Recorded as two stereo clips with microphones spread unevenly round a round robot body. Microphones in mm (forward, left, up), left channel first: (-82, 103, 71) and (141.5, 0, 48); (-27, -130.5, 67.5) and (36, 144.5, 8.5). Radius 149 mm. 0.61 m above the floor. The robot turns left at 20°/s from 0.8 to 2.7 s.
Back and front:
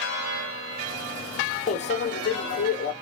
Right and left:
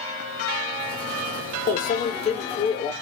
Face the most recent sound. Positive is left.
turn(degrees=180)